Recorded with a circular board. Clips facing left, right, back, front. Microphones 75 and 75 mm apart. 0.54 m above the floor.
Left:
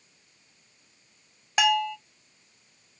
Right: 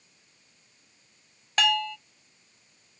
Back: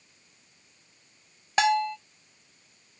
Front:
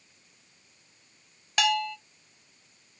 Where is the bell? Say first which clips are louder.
Left 3 dB, back 4 dB; 155° left, 0.5 m.